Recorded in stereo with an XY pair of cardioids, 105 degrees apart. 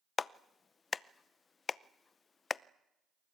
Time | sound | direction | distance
0.2 | a clap | 40° left | 0.6 m